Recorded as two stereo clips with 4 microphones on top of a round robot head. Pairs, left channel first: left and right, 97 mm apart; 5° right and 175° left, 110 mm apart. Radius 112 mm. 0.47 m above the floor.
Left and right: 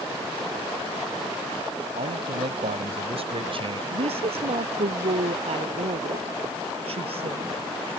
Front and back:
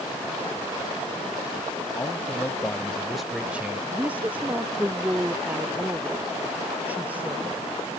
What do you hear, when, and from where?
1.9 s a man speaking: 75° right; by 3.8 s 115° right
3.9 s a woman speaking: 110° right